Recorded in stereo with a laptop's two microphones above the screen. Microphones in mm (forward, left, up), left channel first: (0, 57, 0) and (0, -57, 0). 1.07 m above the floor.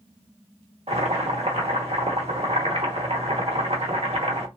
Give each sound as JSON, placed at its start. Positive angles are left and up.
{"t": 0.9, "sound": "boiling", "side_deg": -70, "distance_m": 0.9}